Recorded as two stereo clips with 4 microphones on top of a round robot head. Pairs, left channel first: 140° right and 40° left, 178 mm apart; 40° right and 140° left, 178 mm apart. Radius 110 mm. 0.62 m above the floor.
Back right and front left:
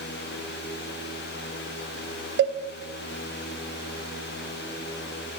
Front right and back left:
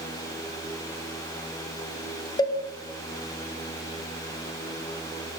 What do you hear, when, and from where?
2.4 s a cowbell: 25° left, 0.6 m